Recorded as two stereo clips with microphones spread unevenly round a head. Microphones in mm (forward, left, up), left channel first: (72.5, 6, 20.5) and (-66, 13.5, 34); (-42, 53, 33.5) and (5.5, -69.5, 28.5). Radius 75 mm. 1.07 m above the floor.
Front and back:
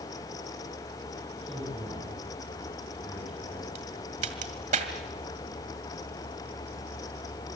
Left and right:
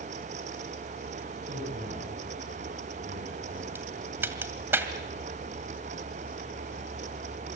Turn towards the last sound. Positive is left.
turn(degrees=-145)